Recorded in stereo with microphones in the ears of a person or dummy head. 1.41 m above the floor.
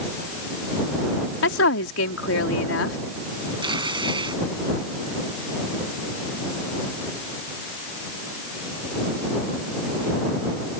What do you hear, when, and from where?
1.4 s a woman speaking: 75° left (ahead or behind)
3.6 s tearing paper: 25° right (ahead or behind)